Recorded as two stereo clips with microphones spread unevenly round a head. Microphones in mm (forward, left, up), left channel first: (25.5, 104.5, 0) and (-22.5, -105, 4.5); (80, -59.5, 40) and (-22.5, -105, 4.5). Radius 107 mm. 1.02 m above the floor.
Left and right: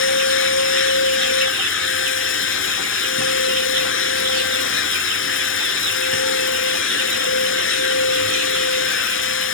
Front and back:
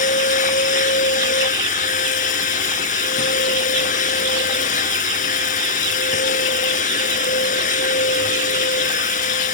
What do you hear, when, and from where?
0.0 s a machine running: 45° left